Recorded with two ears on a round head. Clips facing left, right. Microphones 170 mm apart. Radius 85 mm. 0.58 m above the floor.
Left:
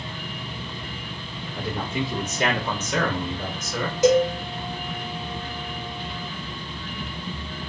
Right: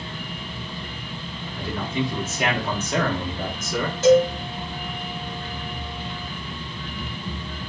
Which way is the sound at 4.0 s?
15° left (ahead or behind).